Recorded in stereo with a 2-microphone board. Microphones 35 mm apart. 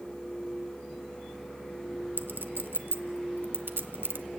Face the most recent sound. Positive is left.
turn(degrees=-70)  # may be behind; listen again after turning